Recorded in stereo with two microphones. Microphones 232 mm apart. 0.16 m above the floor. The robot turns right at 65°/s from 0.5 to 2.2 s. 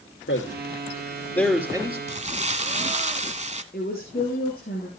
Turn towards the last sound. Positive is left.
turn(degrees=45)  # may be behind; listen again after turning